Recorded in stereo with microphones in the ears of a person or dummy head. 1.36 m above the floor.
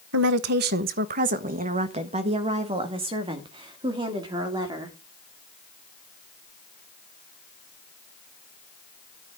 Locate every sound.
0.1 s a woman speaking: 65° right (ahead or behind), 0.8 m; by 5.0 s 20° right (ahead or behind), 3 m